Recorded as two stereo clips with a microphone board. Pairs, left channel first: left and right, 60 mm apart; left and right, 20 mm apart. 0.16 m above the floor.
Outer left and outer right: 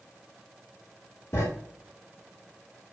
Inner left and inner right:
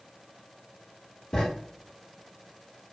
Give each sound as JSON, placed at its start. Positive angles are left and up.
{"t": 1.3, "sound": "writing", "side_deg": 50, "distance_m": 2.5}